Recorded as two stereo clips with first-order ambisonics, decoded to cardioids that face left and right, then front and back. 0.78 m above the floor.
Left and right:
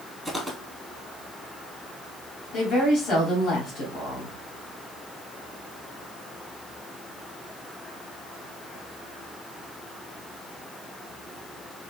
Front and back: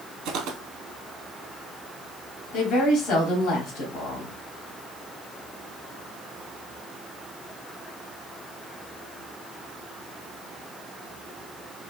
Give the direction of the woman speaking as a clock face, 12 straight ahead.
10 o'clock.